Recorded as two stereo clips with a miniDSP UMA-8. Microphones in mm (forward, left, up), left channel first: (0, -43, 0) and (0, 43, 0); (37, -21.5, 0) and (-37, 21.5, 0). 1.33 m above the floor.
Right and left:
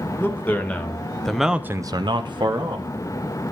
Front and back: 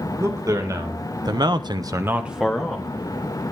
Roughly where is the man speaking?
Behind right.